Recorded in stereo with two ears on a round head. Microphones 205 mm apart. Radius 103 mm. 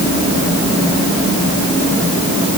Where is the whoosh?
I don't hear a whoosh.